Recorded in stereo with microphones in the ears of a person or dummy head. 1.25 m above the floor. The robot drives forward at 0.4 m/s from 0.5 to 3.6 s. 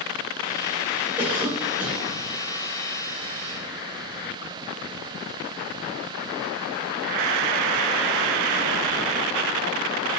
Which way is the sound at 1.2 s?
5° right (ahead or behind).